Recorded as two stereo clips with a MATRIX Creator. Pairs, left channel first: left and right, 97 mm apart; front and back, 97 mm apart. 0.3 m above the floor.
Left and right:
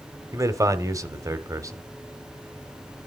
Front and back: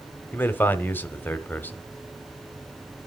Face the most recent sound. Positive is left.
turn(degrees=-60)